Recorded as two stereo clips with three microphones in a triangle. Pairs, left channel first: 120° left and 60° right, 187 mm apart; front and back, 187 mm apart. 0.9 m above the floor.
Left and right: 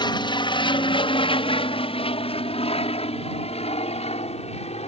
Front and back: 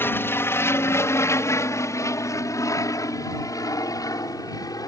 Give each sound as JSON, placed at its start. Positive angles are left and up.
{"t": 0.0, "sound": "an aircraft", "azimuth_deg": 70}